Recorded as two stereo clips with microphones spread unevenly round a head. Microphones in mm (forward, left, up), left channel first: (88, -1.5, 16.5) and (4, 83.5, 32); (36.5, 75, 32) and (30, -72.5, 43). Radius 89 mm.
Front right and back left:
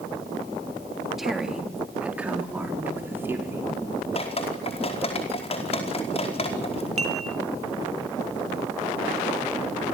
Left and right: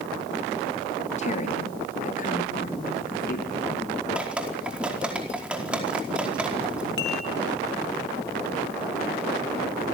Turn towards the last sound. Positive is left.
turn(degrees=110)